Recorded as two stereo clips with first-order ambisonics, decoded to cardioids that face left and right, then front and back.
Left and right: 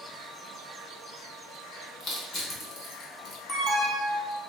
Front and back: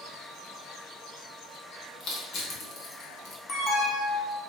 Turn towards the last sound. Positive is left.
turn(degrees=25)